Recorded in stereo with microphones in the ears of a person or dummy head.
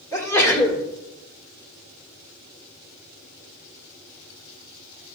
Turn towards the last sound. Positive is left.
turn(degrees=15)  # may be behind; listen again after turning